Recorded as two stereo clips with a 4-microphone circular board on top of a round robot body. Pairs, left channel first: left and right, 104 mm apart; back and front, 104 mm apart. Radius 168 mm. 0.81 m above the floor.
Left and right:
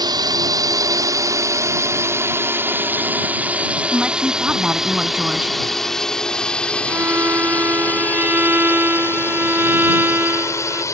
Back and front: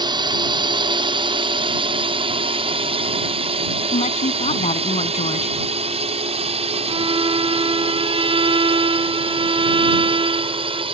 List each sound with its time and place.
0.0 s a drone: 45° right; by 10.9 s 30° left
3.9 s a woman speaking: 170° right
6.9 s a violin: 20° right